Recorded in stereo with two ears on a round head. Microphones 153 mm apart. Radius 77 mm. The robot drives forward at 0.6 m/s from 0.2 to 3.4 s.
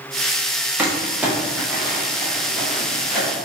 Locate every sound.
0.8 s crumpling: 10° right (ahead or behind), 0.8 m; by 3.4 s 5° right (ahead or behind), 2.5 m